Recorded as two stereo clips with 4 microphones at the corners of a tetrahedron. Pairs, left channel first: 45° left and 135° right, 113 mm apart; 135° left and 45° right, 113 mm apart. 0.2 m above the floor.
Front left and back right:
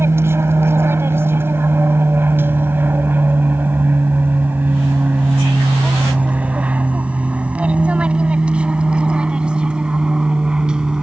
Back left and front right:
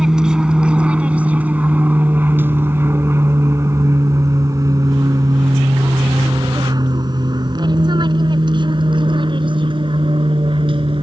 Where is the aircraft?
120° right; by 11.0 s 55° right.